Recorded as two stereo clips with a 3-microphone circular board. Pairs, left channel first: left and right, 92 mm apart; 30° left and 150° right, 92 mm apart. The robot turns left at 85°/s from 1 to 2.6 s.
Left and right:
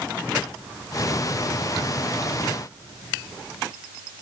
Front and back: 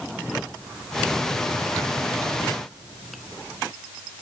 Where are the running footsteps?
No running footsteps in this recording.